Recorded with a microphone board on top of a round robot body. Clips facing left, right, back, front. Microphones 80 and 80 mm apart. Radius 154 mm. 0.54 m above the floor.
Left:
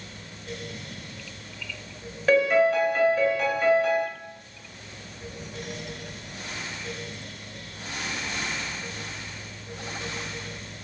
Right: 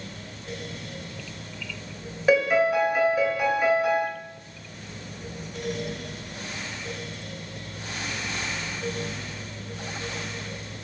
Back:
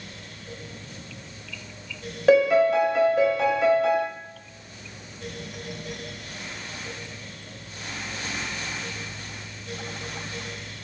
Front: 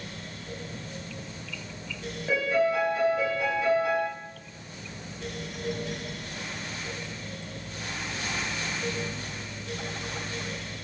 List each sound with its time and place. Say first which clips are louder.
2.3 s a piano: left 1 dB, back 8 dB; 170° right, 0.5 m